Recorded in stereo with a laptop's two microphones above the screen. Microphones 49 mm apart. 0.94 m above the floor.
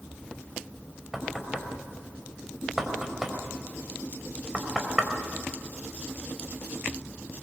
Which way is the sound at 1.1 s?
10° right (ahead or behind).